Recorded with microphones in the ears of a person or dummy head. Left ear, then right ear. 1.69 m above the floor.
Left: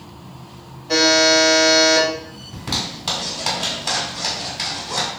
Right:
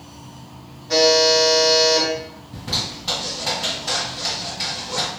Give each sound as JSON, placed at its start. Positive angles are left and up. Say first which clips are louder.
{"t": 0.9, "sound": "a buzzer", "louder": "left 1 dB", "side_deg": 25, "distance_m": 1.7}
{"t": 2.5, "sound": "a zipper", "louder": "even", "side_deg": 35, "distance_m": 1.9}